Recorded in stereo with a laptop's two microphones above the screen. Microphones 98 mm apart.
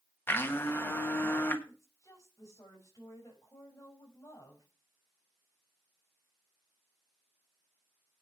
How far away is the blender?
About 1.2 m.